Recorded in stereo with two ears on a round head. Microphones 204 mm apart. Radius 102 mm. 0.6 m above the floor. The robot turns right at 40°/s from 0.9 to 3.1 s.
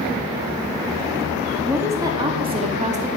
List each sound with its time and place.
1.6 s a woman speaking: 170° right, 0.6 m; by 3.1 s 110° right, 0.6 m